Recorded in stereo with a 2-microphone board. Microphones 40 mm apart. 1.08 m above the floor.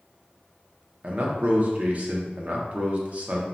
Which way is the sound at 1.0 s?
35° right (ahead or behind).